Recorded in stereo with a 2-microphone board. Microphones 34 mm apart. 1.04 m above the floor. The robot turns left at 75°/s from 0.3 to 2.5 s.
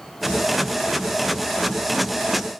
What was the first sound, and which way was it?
Only background noise.